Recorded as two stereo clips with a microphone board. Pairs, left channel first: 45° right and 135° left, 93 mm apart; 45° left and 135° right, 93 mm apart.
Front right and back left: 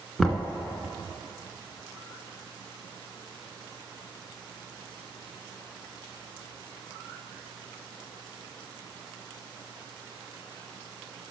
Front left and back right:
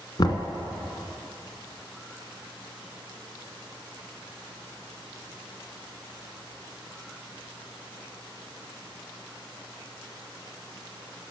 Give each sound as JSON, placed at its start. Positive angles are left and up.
{"t": 0.2, "sound": "knocking", "azimuth_deg": 45, "distance_m": 1.1}